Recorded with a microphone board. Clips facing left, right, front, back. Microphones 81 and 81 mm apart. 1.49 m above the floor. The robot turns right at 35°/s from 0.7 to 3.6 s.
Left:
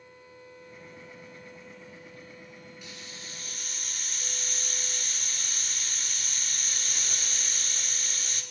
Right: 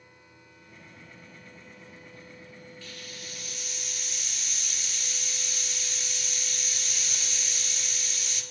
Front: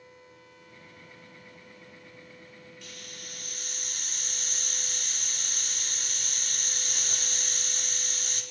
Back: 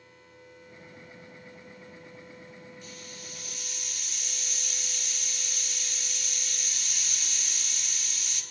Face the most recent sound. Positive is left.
turn(degrees=45)